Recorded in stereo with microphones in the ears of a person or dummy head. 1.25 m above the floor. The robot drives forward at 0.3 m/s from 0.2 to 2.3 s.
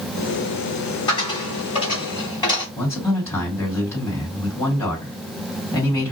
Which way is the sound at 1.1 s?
30° left (ahead or behind).